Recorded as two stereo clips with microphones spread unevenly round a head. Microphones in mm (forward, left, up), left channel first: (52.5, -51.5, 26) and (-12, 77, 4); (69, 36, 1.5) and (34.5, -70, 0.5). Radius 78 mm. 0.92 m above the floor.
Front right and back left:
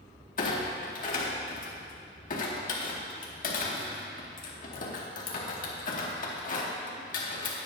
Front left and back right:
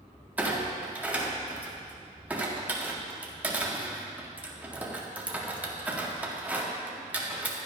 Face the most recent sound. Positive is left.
turn(degrees=-30)